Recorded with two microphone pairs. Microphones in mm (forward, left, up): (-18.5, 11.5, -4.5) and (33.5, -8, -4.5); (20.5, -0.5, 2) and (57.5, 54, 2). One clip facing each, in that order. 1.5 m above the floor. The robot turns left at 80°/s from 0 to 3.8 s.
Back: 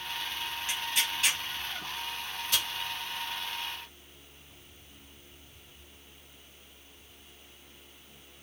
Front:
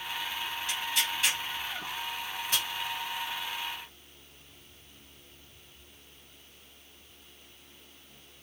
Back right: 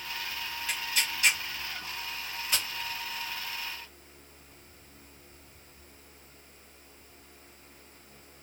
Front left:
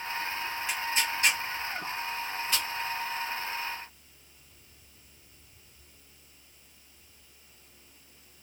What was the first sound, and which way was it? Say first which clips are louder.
Tearing paper: even, front left 2 dB; 100° left.